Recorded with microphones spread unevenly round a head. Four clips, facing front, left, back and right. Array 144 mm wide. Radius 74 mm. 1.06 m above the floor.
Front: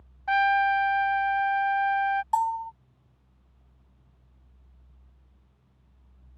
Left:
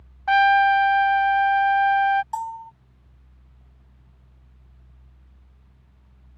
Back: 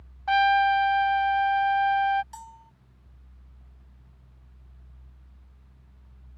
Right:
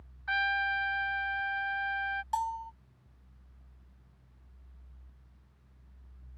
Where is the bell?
5° left.